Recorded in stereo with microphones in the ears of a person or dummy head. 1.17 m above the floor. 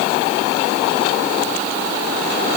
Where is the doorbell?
No doorbell in this recording.